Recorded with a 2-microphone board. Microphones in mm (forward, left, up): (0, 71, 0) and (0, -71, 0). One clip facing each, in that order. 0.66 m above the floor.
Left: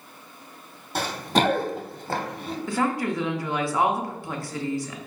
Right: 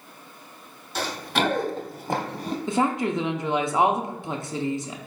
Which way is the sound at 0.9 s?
55° left (ahead or behind).